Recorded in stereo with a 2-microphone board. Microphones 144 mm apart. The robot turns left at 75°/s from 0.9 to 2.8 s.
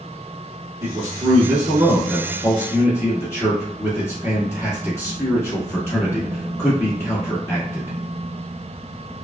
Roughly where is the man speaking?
Right.